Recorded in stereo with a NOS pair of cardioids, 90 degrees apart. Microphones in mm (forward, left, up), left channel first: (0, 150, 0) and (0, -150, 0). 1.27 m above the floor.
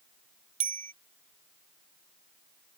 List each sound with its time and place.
0.6 s a bicycle bell: 25° right